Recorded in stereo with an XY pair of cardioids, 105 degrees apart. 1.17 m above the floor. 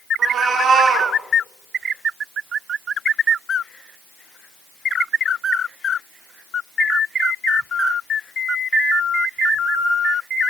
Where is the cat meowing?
55° right, 1.7 m.